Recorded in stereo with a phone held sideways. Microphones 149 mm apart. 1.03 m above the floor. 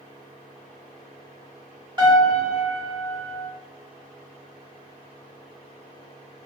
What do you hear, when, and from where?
2.0 s a piano: 30° right (ahead or behind), 1.3 m